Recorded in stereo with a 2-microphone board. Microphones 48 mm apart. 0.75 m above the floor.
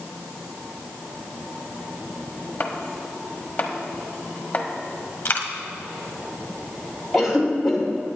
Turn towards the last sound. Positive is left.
turn(degrees=0)  # may be behind; listen again after turning